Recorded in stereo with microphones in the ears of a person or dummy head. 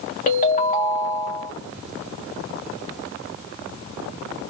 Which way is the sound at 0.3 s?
45° left (ahead or behind).